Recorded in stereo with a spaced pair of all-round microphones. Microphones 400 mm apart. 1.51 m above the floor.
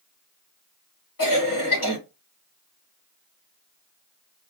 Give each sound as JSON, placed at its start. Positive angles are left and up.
{"t": 1.2, "sound": "a cough", "side_deg": 55, "distance_m": 2.5}